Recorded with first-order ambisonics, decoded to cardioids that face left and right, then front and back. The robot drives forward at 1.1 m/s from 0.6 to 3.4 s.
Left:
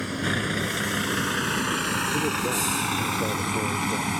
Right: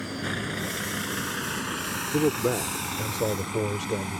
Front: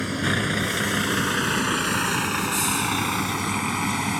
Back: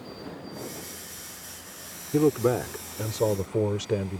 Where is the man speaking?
155° right; by 4.2 s 165° right.